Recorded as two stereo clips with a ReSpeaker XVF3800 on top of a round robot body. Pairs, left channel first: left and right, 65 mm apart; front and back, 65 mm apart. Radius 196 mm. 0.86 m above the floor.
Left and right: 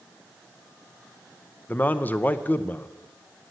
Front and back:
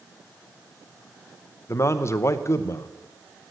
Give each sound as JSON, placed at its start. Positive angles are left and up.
{"t": 1.7, "sound": "a man speaking", "azimuth_deg": 30, "distance_m": 0.8}